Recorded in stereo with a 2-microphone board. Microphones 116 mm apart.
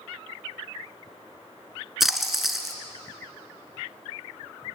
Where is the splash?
Centre (ahead or behind), 1.5 m.